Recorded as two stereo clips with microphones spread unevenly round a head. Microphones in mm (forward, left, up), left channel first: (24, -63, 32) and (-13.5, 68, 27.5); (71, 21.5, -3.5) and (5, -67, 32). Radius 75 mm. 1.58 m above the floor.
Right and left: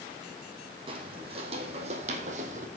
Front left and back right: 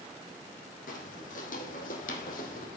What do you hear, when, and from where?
0.9 s footsteps: 55° left, 3.5 m; by 2.7 s 80° left, 2.5 m